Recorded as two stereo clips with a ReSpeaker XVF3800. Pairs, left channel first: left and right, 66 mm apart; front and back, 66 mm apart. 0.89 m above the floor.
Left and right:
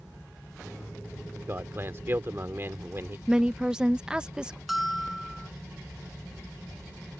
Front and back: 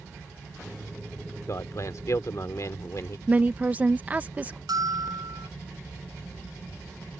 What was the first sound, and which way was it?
A man speaking, 35° right.